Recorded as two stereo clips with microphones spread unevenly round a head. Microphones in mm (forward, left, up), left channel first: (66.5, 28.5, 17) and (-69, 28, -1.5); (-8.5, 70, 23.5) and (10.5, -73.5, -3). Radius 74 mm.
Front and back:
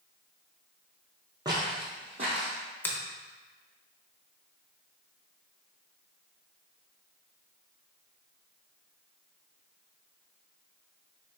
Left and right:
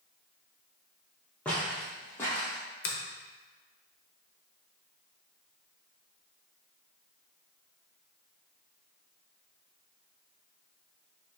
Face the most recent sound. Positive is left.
turn(degrees=75)